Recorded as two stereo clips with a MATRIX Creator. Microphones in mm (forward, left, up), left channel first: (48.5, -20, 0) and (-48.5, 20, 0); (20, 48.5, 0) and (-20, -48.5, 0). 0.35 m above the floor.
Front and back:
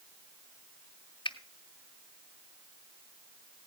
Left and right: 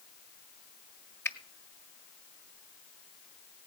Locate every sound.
1.2 s a finger snap: 5° left, 1.8 m